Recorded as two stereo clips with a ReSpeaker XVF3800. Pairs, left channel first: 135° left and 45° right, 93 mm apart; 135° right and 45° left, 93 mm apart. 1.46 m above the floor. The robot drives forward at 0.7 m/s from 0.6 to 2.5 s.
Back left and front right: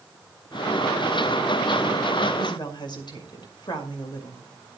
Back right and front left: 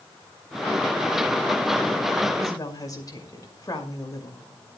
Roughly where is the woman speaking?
Behind.